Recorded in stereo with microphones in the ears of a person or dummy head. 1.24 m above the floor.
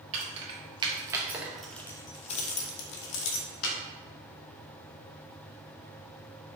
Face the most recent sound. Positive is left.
turn(degrees=75)  # may be behind; listen again after turning